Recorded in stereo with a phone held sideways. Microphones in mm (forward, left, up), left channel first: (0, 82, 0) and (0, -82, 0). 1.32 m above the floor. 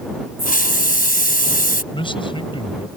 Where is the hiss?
55° left (ahead or behind).